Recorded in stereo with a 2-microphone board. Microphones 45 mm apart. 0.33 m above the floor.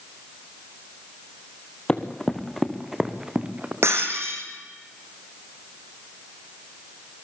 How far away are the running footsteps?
About 1.9 m.